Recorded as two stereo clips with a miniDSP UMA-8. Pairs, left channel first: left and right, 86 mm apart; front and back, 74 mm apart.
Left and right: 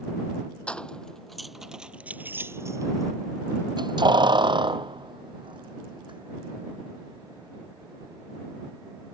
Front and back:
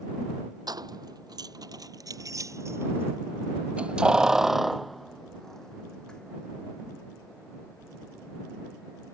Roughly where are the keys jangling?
Behind.